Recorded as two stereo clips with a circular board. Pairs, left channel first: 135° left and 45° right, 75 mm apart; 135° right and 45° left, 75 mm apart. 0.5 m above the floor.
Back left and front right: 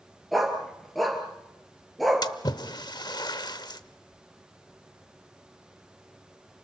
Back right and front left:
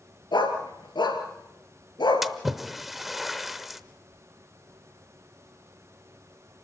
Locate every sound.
0.3 s a dog barking: 135° right, 3 m
2.2 s a splash: 130° left, 0.8 m